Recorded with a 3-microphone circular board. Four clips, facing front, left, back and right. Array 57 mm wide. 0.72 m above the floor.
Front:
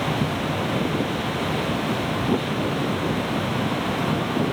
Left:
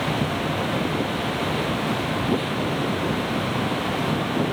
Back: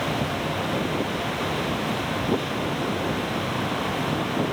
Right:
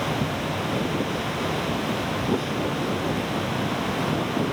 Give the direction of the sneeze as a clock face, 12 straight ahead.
I don't hear a sneeze.